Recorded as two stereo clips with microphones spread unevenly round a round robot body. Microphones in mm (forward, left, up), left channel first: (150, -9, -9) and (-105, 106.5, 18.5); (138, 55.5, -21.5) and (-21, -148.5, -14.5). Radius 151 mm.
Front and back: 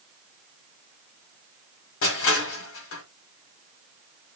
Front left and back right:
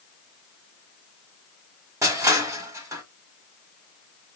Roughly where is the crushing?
Ahead right.